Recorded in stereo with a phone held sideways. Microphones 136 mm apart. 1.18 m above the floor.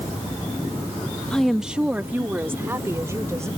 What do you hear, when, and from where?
1.3 s a woman speaking: 5° left (ahead or behind); by 3.5 s 20° right (ahead or behind)